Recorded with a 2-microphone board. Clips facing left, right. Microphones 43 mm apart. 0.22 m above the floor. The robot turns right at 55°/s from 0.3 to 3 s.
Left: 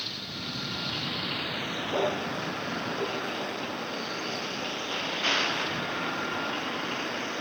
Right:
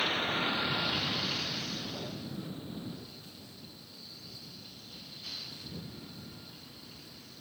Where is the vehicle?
40° right; by 7.4 s 110° left.